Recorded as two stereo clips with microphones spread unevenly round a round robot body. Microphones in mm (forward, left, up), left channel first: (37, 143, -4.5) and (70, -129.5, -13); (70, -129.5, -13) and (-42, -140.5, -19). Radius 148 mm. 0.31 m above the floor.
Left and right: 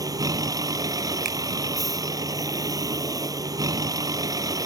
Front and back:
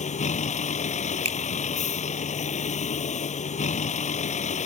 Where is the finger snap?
145° right.